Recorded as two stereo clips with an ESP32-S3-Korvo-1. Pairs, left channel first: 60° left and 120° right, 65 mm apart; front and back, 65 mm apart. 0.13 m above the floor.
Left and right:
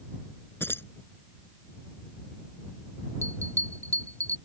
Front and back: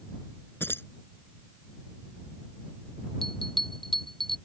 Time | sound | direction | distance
0.6 | keys jangling | 30° left | ?
3.2 | a bell | 85° right | ?